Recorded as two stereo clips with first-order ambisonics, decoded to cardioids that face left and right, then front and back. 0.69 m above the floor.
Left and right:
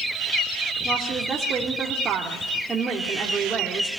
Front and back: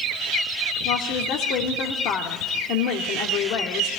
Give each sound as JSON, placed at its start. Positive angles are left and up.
{"t": 0.8, "sound": "a woman speaking", "azimuth_deg": -20, "distance_m": 1.9}